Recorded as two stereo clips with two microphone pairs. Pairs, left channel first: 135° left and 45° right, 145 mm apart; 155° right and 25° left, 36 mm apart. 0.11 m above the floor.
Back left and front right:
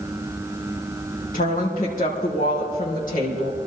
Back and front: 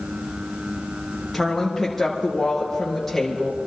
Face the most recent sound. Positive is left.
turn(degrees=125)